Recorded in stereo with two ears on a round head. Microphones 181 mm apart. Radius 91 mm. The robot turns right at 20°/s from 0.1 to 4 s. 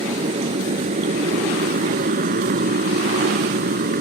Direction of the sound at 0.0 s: 30° right (ahead or behind).